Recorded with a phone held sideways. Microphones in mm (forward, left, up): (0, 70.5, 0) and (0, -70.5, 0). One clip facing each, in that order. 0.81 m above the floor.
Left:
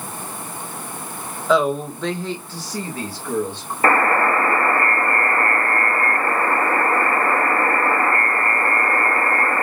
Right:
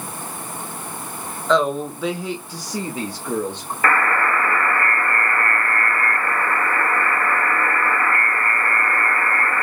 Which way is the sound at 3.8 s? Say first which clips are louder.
Left 3 dB; 30° left (ahead or behind).